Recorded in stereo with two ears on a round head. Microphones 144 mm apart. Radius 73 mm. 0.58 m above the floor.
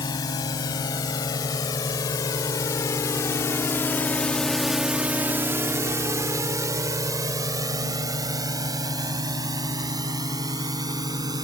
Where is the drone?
25° left (ahead or behind); by 11.4 s 25° right (ahead or behind).